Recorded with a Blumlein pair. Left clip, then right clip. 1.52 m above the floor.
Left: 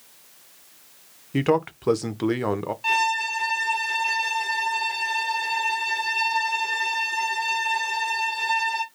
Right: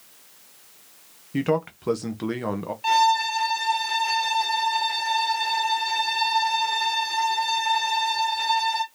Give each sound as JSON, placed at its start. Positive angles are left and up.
{"t": 1.3, "sound": "a man speaking", "azimuth_deg": 15, "distance_m": 0.6}
{"t": 2.8, "sound": "a violin", "azimuth_deg": -5, "distance_m": 1.2}